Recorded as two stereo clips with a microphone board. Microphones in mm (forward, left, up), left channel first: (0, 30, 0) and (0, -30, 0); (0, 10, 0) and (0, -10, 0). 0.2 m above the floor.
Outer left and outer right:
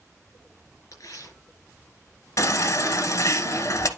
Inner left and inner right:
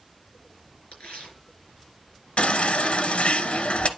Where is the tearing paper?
60° left (ahead or behind), 4 m.